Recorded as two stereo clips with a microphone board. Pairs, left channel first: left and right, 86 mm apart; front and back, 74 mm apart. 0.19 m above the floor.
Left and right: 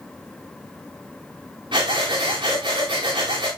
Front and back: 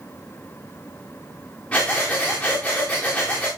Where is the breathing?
75° right, 3.5 m.